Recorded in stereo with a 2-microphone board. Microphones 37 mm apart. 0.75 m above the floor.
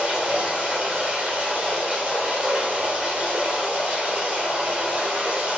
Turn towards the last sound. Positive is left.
turn(degrees=-30)  # may be behind; listen again after turning